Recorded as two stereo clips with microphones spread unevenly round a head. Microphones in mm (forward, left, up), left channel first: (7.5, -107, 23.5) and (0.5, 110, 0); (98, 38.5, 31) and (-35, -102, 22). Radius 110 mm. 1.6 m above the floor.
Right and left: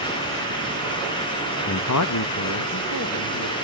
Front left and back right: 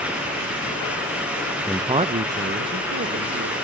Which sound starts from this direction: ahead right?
A man speaking, at 1.7 s.